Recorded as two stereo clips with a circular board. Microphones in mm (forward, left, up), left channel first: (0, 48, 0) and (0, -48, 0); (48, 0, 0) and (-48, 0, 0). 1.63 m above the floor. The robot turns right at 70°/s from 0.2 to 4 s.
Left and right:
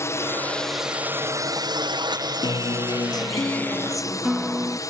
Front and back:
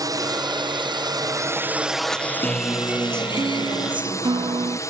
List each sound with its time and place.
0.0 s a drone: 140° left; by 4.9 s 50° left
2.4 s a guitar: 75° left; by 4.8 s 175° right